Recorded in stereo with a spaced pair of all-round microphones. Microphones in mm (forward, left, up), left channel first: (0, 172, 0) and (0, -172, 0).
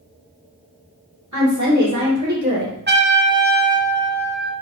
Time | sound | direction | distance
1.3 | a woman speaking | 55° right (ahead or behind) | 2 m
2.9 | a trumpet | 30° right (ahead or behind) | 0.7 m